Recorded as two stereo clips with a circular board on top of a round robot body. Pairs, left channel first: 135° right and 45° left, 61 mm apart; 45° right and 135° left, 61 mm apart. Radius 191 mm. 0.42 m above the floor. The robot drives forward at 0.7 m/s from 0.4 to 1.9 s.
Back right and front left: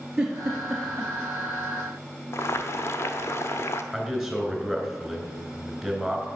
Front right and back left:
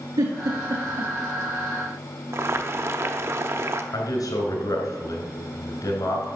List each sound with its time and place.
0.2 s a giggle: 125° left, 1.7 m; by 1.1 s 135° left, 2 m
2.3 s boiling: straight behind, 0.7 m
3.9 s a man speaking: 50° right, 3 m